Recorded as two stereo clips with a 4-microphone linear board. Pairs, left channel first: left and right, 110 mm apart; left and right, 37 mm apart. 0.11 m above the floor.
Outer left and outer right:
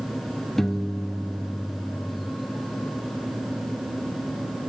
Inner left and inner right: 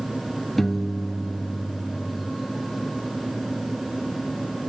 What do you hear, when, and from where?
0.6 s a piano: 5° left (ahead or behind), 1.2 m